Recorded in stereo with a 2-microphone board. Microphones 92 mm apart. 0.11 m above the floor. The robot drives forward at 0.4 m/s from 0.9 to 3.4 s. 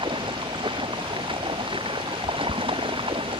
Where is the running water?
70° right (ahead or behind); by 3.4 s 75° right (ahead or behind).